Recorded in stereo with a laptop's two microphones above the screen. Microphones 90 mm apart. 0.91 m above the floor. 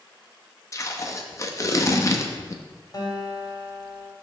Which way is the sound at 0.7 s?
35° left (ahead or behind).